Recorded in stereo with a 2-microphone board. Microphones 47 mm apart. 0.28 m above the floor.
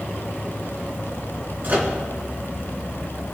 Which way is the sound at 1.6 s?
45° right (ahead or behind).